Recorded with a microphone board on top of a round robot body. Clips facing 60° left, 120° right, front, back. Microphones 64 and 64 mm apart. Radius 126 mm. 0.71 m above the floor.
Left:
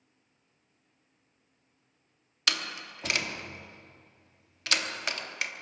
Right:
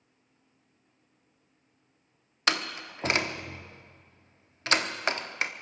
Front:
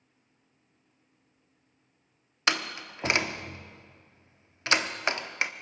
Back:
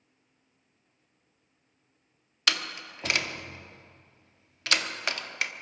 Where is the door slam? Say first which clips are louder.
Right 4 dB, front 2 dB; 65° right, 1.2 m.